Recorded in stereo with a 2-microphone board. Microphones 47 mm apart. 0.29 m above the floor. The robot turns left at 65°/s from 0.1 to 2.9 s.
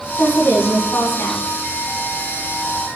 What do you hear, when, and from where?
0.2 s a woman speaking: 130° left, 2.5 m; by 1.4 s 50° left, 2.5 m